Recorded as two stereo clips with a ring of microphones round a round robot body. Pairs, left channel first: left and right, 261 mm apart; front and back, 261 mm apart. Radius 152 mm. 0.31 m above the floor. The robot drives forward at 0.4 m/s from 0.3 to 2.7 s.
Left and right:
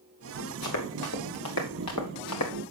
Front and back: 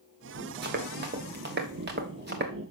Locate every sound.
0.6 s running footsteps: 130° left, 2 m